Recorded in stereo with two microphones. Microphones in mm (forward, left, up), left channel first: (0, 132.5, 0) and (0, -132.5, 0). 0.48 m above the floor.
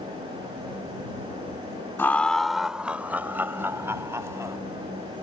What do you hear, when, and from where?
2.0 s laughter: 10° left (ahead or behind); by 4.6 s 10° right (ahead or behind)